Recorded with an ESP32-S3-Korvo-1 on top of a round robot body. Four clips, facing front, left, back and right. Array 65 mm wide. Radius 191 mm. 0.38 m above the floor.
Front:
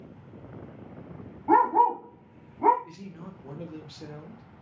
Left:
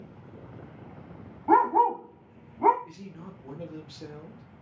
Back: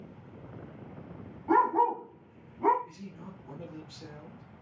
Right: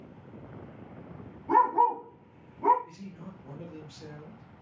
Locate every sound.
1.5 s a dog barking: 50° left, 0.8 m
2.8 s a man speaking: 30° left, 1.0 m